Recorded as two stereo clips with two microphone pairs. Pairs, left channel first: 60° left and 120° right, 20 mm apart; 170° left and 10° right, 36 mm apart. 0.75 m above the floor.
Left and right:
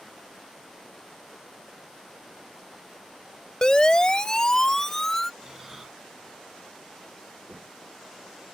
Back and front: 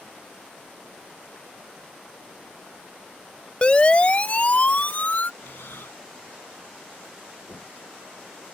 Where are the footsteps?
155° left.